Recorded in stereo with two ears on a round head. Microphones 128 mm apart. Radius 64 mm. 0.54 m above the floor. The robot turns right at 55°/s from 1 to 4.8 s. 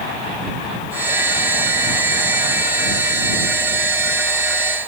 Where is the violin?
No violin in this recording.